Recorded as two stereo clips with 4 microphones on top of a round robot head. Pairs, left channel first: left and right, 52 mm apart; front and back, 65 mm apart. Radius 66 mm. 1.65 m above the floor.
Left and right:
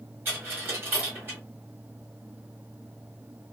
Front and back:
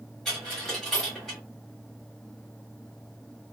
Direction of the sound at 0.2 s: 80° right.